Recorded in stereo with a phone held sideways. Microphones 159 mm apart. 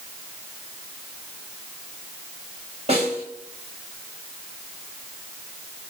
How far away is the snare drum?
About 7 m.